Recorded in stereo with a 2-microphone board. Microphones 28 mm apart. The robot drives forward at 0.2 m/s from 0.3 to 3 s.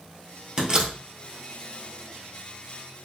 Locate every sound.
0.6 s a door slam: 25° right (ahead or behind), 1.5 m; by 1.0 s 20° right (ahead or behind), 1.6 m